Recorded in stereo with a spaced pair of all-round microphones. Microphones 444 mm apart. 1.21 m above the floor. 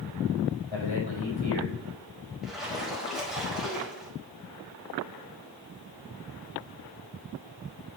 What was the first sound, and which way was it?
A man speaking, 75° left (ahead or behind).